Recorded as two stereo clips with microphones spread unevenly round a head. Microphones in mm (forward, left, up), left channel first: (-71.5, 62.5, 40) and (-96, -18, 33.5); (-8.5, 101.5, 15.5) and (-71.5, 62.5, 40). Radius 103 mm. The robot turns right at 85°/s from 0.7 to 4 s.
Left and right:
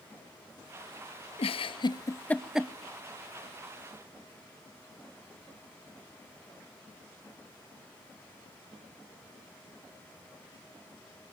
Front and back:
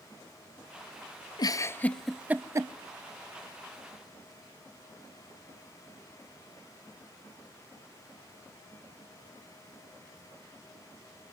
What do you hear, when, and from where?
1.4 s a giggle: 70° left, 0.7 m; by 2.7 s straight behind, 0.7 m